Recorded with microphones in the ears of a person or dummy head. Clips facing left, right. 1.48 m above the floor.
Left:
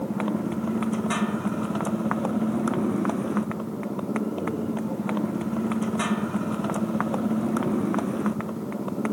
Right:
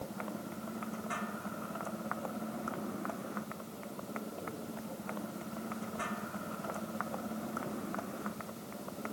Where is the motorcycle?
80° left.